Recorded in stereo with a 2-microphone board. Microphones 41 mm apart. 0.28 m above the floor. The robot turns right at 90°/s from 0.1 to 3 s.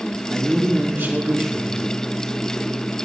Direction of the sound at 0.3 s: 160° right.